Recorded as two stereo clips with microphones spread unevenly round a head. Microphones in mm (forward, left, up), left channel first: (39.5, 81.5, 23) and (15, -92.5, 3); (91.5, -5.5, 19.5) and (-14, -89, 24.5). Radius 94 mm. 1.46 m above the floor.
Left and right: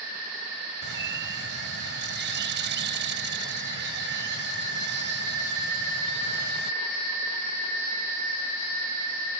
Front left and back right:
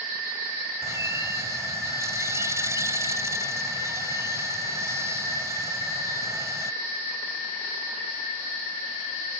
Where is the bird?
70° right.